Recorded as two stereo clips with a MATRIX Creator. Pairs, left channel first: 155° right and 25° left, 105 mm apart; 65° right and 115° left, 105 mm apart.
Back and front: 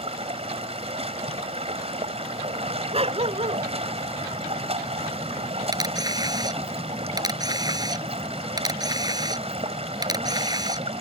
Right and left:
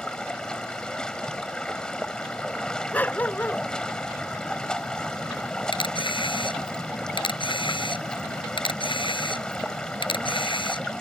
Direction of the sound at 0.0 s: 15° left.